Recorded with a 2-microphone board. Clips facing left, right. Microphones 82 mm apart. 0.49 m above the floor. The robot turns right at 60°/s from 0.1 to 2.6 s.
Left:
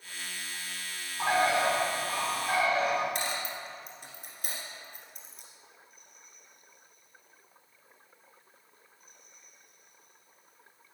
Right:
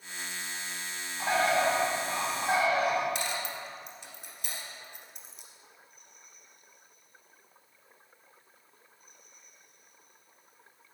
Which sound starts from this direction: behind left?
A bird, at 1.2 s.